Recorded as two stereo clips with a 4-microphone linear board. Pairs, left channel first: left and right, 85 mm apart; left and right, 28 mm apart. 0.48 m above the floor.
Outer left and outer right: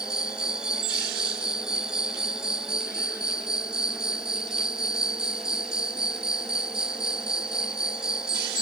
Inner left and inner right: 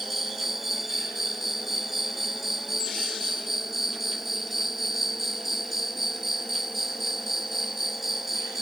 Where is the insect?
10° right (ahead or behind).